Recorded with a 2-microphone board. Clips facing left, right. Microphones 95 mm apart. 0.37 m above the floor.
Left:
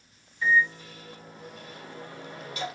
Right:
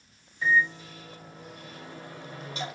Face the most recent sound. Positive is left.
turn(degrees=-25)  # may be behind; listen again after turning